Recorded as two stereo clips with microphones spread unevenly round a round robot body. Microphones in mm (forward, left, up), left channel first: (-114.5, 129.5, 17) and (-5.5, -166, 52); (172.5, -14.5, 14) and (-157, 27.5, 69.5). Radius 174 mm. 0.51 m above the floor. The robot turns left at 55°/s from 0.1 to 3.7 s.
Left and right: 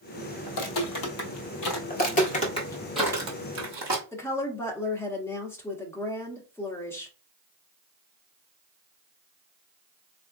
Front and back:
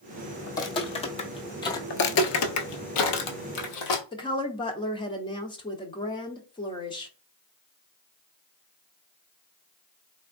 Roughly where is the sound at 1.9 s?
Ahead left.